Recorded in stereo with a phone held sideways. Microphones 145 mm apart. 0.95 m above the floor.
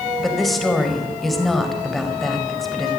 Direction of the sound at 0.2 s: Centre (ahead or behind).